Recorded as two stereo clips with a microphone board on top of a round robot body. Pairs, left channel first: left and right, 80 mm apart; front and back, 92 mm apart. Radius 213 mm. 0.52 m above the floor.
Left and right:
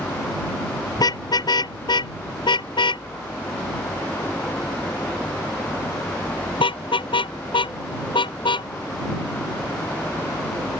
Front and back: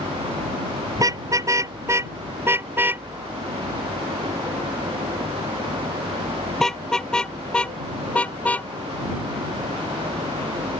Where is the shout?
I don't hear a shout.